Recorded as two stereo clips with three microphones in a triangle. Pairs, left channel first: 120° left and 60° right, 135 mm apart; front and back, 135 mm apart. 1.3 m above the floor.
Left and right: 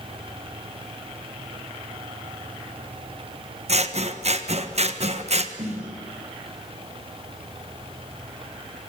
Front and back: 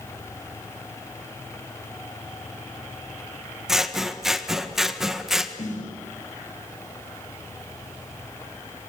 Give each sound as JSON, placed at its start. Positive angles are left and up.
{"t": 3.7, "sound": "scissors", "azimuth_deg": -90, "distance_m": 1.5}
{"t": 5.6, "sound": "a snare drum", "azimuth_deg": -25, "distance_m": 6.0}